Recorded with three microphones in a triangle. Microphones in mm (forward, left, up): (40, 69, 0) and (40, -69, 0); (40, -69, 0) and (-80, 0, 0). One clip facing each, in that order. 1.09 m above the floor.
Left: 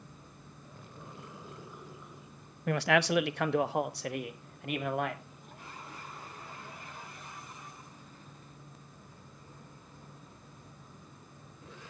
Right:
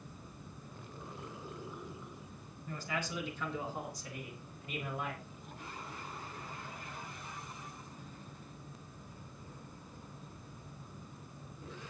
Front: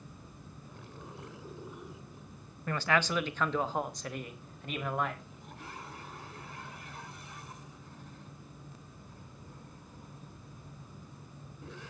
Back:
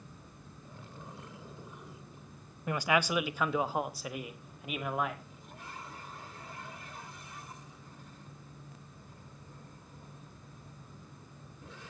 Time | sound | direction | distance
2.7 | a man speaking | 75° left | 0.6 m